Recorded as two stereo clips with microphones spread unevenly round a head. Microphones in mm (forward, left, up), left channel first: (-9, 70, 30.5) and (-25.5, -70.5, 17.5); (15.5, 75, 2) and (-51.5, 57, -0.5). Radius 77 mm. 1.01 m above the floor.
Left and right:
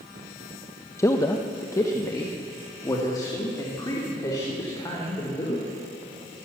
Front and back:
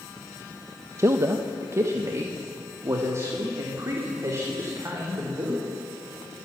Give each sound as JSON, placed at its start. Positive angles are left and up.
{"t": 1.0, "sound": "a man speaking", "azimuth_deg": 155, "distance_m": 1.1}